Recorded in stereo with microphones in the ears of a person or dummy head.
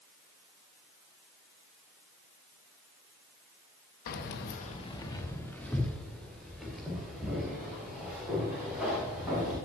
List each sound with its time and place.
4.1 s keys jangling: 45° left (ahead or behind), 0.9 m; by 9.5 s 5° right (ahead or behind), 7.5 m